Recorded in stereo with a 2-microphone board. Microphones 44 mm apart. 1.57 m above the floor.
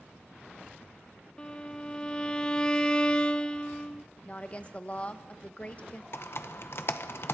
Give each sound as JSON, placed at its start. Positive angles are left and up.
{"t": 1.4, "sound": "a violin", "side_deg": 20, "distance_m": 0.6}
{"t": 4.2, "sound": "a woman speaking", "side_deg": 30, "distance_m": 1.1}
{"t": 6.1, "sound": "typing on a keyboard", "side_deg": 60, "distance_m": 1.0}